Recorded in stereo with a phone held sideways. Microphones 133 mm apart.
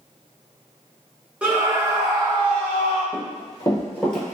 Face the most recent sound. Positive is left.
turn(degrees=-5)  # may be behind; listen again after turning